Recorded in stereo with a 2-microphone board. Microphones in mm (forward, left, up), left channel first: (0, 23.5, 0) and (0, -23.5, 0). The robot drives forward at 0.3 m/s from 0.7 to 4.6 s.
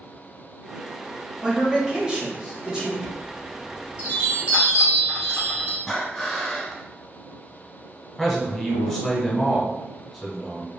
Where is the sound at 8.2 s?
Centre (ahead or behind), 1.0 m.